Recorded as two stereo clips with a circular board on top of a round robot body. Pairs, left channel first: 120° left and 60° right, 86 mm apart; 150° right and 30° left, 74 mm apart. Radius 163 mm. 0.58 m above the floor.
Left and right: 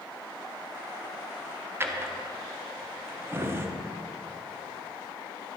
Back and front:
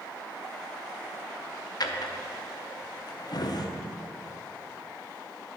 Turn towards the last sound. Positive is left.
turn(degrees=-120)